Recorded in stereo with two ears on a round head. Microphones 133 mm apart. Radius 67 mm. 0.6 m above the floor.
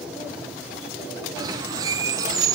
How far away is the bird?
About 1.0 m.